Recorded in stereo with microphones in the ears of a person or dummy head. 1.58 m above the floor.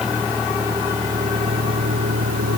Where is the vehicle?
Centre (ahead or behind); by 2.6 s 45° right (ahead or behind).